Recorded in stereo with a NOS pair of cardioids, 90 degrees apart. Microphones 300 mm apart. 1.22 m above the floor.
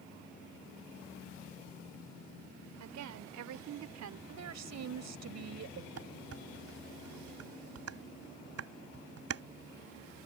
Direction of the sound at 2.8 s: 70° right.